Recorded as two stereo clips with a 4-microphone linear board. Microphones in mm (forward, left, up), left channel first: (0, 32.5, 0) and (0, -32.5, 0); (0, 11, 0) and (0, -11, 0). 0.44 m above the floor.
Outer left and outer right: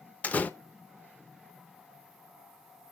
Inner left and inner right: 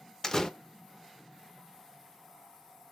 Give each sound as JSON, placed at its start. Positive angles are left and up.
{"t": 0.2, "sound": "a door slam", "side_deg": 25, "distance_m": 0.5}